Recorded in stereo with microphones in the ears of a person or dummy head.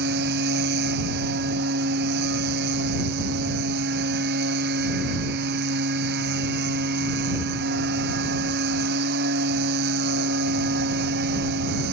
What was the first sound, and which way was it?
A machine running, 60° right (ahead or behind).